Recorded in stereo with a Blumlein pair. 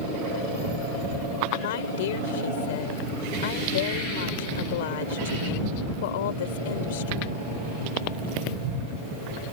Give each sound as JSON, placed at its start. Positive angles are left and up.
{"t": 1.6, "sound": "a woman speaking", "azimuth_deg": 55}